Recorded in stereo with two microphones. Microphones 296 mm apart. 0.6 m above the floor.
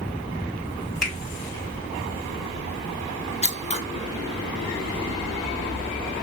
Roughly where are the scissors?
Left.